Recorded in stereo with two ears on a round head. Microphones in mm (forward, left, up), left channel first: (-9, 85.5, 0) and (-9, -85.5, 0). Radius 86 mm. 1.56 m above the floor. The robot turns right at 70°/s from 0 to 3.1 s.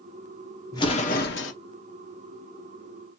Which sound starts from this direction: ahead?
An explosion, at 0.7 s.